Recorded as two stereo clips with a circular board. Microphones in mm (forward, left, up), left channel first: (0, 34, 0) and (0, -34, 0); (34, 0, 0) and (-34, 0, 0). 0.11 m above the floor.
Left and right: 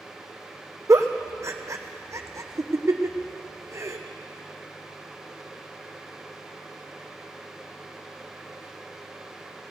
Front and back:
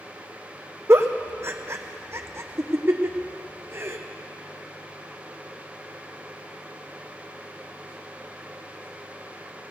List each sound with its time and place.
0.9 s a giggle: 130° right, 1.1 m